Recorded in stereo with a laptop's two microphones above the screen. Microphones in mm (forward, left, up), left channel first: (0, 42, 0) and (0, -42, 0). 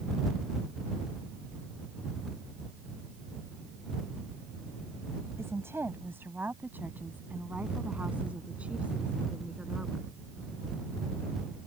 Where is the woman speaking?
30° right (ahead or behind); by 10.1 s 10° right (ahead or behind).